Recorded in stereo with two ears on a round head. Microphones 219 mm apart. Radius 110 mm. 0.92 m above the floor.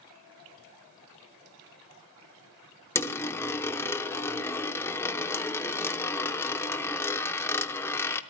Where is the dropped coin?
10° left (ahead or behind), 0.7 m.